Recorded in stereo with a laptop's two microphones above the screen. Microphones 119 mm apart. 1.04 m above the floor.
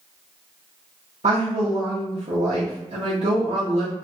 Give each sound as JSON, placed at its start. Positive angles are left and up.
{"t": 1.2, "sound": "a woman speaking", "side_deg": -70, "distance_m": 0.7}